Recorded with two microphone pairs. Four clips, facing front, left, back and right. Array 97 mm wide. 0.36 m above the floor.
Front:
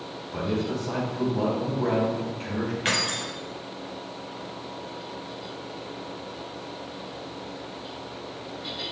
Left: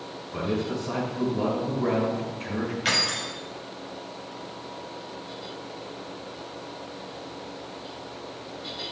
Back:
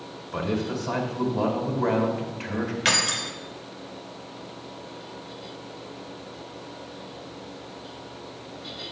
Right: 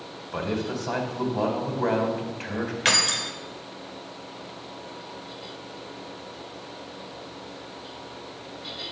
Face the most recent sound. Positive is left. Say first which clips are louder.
# right 2 dB, back 2 dB
turn(degrees=-115)